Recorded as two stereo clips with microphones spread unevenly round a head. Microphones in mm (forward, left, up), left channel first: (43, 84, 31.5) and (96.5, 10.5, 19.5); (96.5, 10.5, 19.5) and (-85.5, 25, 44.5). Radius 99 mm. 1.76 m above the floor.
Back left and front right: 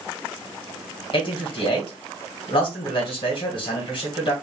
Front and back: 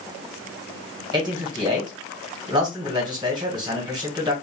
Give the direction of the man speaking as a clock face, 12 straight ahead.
8 o'clock.